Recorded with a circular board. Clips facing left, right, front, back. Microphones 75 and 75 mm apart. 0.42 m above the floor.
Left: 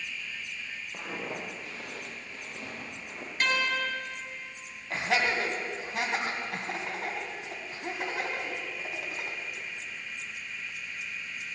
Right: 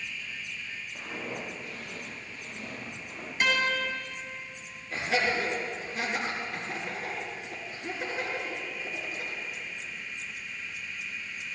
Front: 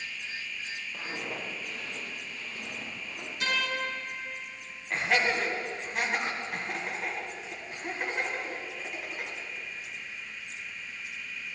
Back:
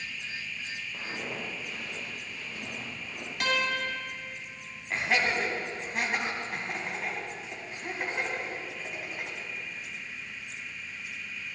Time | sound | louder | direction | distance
0.9 | footsteps | left 1 dB, even | 90° left | 3 m
3.4 | a guitar | right 1 dB, back 2 dB | 175° right | 4 m
4.9 | laughter | even, front 1 dB | 90° left | 2.5 m